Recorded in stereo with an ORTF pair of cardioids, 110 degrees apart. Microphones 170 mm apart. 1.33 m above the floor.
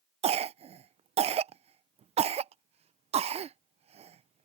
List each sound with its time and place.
0.2 s a cough: 40° right